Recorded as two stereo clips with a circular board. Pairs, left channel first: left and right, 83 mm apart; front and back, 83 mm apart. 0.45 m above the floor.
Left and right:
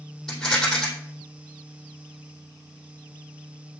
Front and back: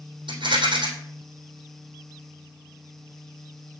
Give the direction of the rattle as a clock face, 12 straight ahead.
6 o'clock.